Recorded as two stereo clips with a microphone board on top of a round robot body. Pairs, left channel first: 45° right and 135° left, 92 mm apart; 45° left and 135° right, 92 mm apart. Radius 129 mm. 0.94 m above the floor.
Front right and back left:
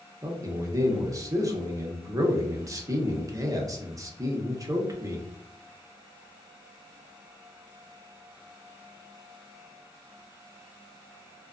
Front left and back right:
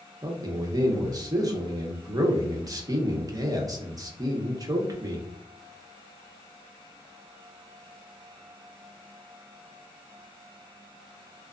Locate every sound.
0.2 s a man speaking: straight behind, 0.8 m